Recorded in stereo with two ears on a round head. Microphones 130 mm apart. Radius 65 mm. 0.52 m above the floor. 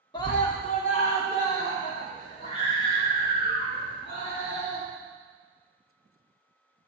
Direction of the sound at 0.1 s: 30° left (ahead or behind).